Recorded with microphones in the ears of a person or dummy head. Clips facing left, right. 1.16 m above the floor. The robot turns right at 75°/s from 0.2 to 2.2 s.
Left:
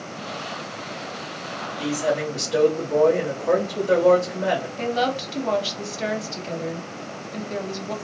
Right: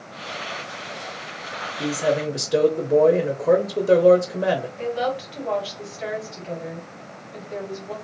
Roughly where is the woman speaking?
Left.